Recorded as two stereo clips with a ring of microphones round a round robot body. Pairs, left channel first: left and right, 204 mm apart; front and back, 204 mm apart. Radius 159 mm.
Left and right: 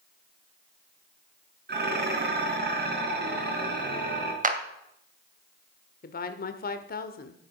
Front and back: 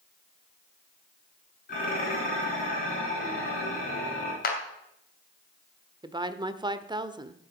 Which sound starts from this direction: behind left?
A woman speaking, at 6.0 s.